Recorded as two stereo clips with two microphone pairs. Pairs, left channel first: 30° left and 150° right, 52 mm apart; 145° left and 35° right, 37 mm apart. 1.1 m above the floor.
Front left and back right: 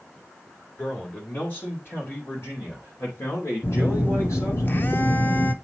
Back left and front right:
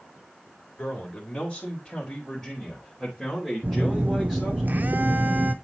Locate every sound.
0.8 s a man speaking: 90° left, 2.5 m; by 4.6 s 45° left, 3 m
3.6 s a phone buzzing: 10° right, 0.6 m